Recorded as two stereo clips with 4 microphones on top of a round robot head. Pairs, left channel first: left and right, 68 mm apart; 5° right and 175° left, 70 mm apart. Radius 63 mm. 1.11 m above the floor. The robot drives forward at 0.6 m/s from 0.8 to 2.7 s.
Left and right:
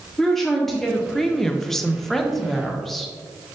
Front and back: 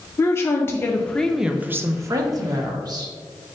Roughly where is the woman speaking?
Ahead.